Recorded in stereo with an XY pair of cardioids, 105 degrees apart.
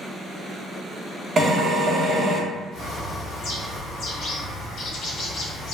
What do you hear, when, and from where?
1.4 s a drill: 40° right, 1.2 m
2.7 s a bird: 60° left, 0.9 m